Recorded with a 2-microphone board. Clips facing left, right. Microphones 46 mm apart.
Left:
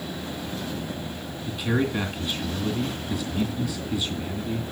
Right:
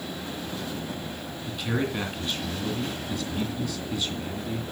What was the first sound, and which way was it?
A man speaking, 5° left (ahead or behind).